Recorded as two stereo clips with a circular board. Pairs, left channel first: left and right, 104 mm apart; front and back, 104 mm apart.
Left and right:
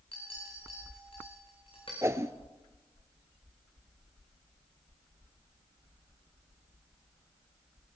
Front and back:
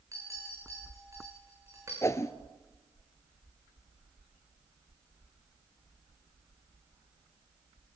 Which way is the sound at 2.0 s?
45° right.